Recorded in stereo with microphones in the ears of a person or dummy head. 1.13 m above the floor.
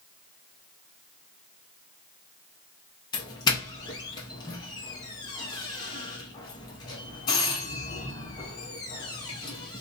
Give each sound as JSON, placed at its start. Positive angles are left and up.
{"t": 3.1, "sound": "a doorbell", "side_deg": 20, "distance_m": 0.7}